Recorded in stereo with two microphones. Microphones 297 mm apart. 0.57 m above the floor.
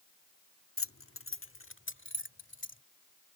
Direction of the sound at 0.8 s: 50° left (ahead or behind).